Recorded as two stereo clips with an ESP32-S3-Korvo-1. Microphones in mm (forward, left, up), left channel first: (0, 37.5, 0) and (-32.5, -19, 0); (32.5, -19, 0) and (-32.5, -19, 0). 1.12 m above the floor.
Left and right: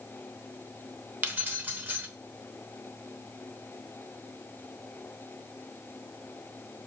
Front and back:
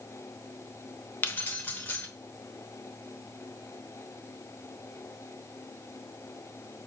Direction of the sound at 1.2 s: 60° right.